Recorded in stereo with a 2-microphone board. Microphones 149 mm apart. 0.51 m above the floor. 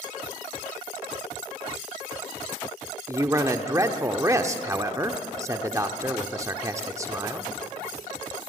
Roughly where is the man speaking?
Right.